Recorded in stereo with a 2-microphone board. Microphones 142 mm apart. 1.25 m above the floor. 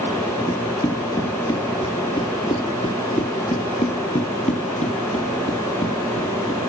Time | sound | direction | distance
0.5 | running footsteps | 20° left (ahead or behind) | 1.9 m